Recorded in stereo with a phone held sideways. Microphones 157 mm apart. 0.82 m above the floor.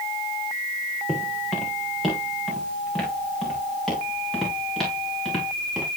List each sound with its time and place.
1.1 s footsteps: centre (ahead or behind), 4 m